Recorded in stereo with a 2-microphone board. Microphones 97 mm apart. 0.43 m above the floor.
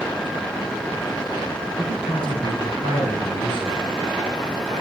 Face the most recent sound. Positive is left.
turn(degrees=55)  # may be behind; listen again after turning